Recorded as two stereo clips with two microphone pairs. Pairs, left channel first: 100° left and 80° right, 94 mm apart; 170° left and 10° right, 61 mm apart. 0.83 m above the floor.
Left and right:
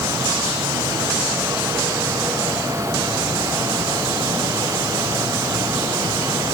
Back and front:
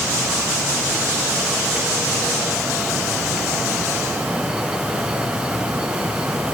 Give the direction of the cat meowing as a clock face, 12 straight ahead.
No cat meowing in this recording.